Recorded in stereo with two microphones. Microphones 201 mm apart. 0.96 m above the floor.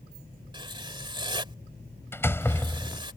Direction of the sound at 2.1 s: 10° left (ahead or behind).